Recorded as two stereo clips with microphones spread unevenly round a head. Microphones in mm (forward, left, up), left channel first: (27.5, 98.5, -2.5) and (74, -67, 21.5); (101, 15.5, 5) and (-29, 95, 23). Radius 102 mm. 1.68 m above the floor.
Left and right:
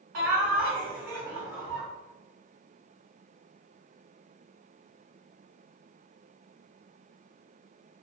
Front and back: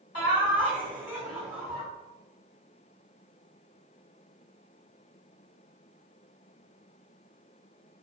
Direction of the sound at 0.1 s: 75° right.